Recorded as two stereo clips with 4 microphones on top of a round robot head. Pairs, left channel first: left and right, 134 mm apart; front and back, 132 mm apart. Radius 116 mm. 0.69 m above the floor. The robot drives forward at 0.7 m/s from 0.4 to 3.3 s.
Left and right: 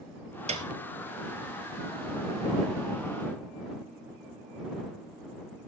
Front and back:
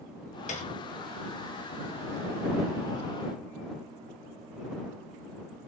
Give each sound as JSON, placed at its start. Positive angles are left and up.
{"t": 0.5, "sound": "a piano", "azimuth_deg": -50, "distance_m": 3.0}